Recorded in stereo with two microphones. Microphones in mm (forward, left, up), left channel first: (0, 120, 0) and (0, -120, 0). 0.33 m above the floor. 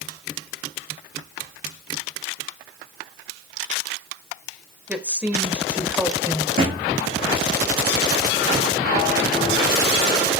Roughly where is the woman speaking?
Centre.